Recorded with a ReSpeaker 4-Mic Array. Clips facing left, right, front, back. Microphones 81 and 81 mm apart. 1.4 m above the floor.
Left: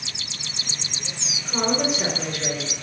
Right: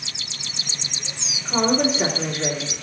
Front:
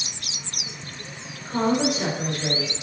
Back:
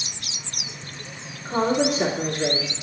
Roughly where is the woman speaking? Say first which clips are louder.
Right 4 dB, back 1 dB; behind right.